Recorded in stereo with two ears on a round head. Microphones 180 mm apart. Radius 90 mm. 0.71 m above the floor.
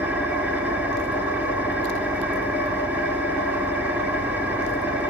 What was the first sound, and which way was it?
An engine running, 10° right (ahead or behind).